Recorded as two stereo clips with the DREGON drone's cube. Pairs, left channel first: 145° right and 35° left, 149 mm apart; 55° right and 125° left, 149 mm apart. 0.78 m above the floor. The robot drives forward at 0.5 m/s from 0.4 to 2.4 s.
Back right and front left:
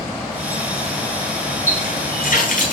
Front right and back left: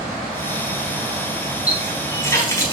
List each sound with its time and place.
1.7 s a running tap: 125° right, 4 m; by 2.7 s 130° right, 4.5 m